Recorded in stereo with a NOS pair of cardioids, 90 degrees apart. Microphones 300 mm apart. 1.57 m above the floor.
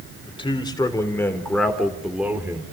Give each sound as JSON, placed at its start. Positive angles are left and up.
{"t": 0.2, "sound": "a man speaking", "azimuth_deg": 20, "distance_m": 4.5}